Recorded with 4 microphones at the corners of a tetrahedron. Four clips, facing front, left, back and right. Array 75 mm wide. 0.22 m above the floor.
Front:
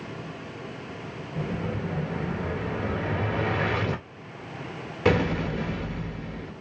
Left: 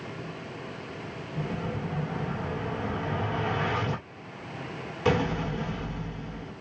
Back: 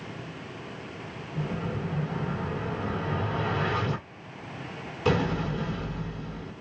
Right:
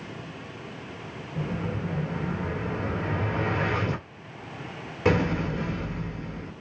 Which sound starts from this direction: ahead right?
An explosion, at 1.4 s.